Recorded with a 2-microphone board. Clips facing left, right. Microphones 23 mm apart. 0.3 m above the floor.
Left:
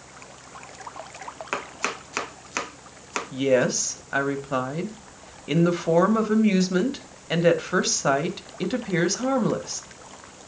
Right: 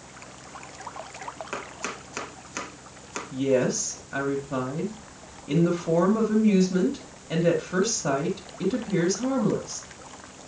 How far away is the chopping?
About 0.7 m.